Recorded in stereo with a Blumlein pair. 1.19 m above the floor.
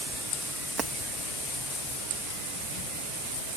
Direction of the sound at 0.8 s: 15° right.